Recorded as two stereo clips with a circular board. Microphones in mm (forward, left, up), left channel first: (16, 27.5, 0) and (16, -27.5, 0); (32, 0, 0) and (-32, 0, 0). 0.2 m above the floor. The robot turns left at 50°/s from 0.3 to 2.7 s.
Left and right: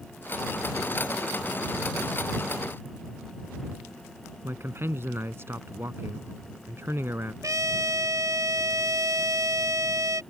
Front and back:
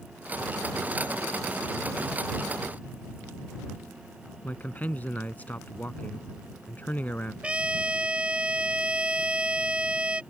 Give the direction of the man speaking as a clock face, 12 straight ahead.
2 o'clock.